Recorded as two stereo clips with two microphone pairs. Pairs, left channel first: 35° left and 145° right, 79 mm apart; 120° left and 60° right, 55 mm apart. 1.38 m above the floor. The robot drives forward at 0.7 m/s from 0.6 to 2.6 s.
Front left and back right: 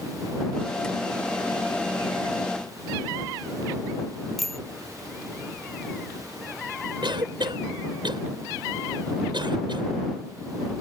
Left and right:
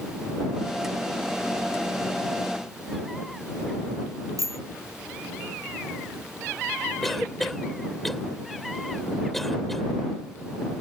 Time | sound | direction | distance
4.4 | a bicycle bell | 55° right | ?
7.0 | a cough | 155° right | ?